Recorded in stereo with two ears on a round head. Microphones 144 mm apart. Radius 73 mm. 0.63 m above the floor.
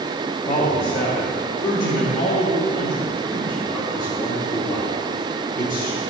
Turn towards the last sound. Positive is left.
turn(degrees=15)  # may be behind; listen again after turning